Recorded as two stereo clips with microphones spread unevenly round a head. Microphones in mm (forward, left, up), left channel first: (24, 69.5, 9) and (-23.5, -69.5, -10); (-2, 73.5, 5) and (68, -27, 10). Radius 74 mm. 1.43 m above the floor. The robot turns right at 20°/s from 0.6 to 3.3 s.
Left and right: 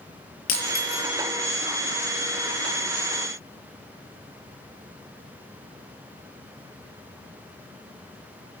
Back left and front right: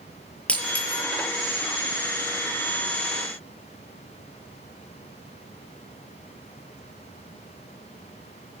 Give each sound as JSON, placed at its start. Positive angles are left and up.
{"t": 0.5, "sound": "breaking glass", "azimuth_deg": 45, "distance_m": 7.0}